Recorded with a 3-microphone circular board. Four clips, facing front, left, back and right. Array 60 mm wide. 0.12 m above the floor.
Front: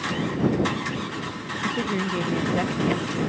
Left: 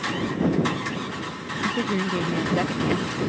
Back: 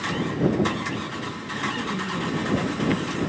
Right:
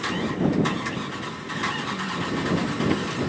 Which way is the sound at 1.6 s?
55° left.